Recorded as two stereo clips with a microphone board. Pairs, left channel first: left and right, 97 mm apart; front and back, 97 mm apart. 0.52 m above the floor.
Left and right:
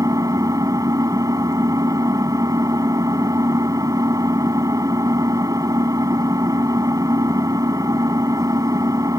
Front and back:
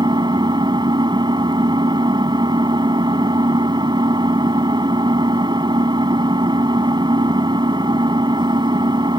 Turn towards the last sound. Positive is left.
turn(degrees=-140)